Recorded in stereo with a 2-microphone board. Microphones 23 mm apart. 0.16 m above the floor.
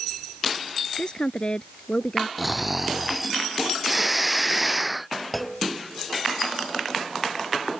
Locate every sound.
1.0 s a woman speaking: 45° left (ahead or behind); by 2.3 s 35° left (ahead or behind)
2.4 s snoring: centre (ahead or behind)
5.3 s a clunk: 10° left (ahead or behind)